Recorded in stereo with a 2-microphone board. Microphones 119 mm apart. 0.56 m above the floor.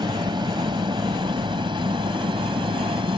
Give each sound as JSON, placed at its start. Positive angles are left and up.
{"t": 0.0, "sound": "an aircraft", "side_deg": -40}